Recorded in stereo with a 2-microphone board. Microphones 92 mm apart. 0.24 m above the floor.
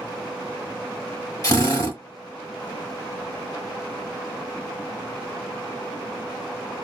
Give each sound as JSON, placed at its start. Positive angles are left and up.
{"t": 1.4, "sound": "a drill", "side_deg": 40, "distance_m": 1.3}